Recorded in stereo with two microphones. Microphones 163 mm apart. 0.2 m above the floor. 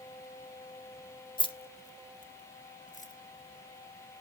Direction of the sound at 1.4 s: 30° left (ahead or behind).